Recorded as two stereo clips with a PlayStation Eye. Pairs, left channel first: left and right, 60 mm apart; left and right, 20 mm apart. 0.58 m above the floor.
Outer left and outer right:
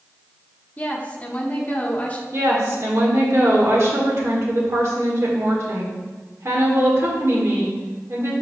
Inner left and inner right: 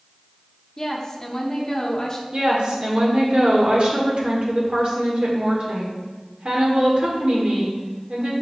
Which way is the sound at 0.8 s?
25° left (ahead or behind).